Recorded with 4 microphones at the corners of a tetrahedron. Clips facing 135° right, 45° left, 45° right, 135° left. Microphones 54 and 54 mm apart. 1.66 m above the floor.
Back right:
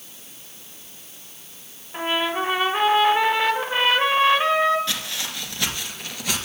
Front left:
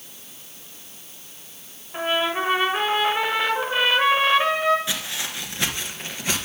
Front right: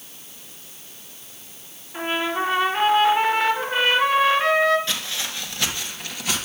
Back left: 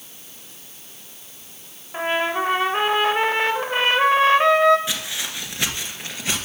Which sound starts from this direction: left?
Footsteps, at 4.9 s.